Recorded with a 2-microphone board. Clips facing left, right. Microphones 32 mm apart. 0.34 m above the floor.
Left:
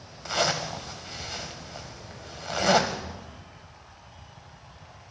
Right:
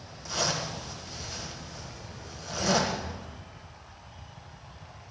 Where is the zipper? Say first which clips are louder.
Left 4 dB; 55° left (ahead or behind), 1.5 m.